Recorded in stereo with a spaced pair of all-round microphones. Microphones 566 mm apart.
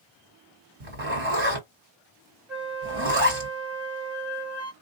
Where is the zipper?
60° right (ahead or behind), 1.9 m.